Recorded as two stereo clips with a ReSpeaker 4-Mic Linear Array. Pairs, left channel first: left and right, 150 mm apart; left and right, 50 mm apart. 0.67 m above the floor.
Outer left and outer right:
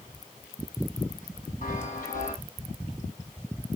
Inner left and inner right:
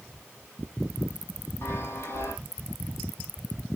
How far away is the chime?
About 5 m.